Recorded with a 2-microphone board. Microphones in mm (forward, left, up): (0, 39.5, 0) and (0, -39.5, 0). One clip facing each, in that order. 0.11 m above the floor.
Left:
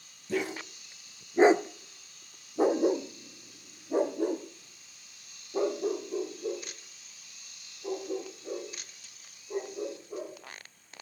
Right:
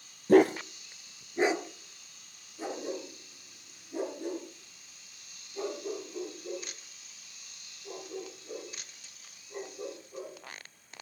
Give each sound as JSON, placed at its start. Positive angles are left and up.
{"t": 0.3, "sound": "a dog barking", "side_deg": -55, "distance_m": 1.1}